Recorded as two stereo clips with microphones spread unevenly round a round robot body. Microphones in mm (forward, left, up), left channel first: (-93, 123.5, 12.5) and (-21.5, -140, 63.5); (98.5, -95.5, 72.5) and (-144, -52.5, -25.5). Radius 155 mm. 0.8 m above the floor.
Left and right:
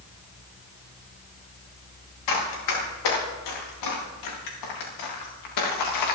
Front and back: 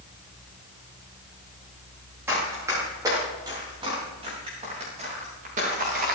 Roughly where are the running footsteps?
Left.